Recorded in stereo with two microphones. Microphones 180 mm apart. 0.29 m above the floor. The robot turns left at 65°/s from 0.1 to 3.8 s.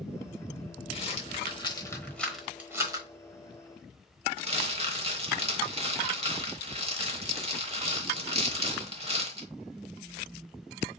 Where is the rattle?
35° left (ahead or behind), 1.0 m; by 9.5 s 35° right (ahead or behind), 1.0 m.